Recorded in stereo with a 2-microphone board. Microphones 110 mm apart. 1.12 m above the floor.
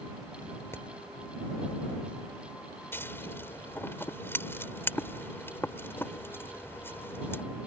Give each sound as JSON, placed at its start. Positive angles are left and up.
{"t": 0.7, "sound": "hammering", "side_deg": 25}
{"t": 2.9, "sound": "scissors", "side_deg": 20}